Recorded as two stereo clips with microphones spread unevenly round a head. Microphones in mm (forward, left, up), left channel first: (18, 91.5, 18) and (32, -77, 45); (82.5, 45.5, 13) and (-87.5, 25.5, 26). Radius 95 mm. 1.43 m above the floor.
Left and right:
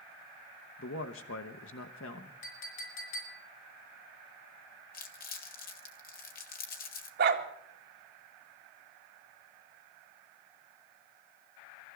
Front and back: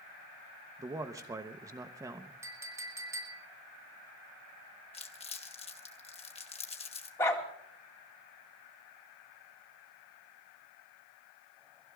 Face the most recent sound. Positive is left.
turn(degrees=-70)